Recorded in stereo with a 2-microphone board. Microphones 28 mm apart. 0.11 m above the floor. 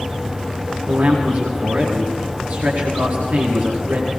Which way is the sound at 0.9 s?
80° right.